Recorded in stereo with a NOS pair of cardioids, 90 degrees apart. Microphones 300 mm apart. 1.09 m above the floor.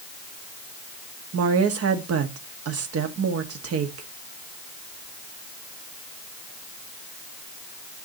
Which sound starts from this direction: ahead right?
A woman speaking, at 1.3 s.